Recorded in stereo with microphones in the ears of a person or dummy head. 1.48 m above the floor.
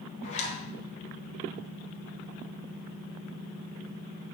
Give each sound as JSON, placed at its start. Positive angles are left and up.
{"t": 0.2, "sound": "a zipper", "side_deg": 40, "distance_m": 2.0}